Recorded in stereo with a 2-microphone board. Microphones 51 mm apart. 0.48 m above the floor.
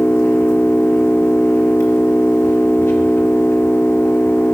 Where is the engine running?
60° left (ahead or behind), 3.5 m.